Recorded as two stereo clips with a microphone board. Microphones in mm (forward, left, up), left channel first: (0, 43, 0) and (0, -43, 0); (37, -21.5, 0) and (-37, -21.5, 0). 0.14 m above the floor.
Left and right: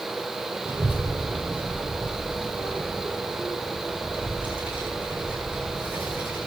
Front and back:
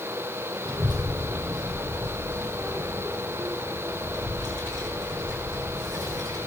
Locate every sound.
0.7 s a child speaking: 160° right, 2.5 m; by 6.4 s 165° right, 5.5 m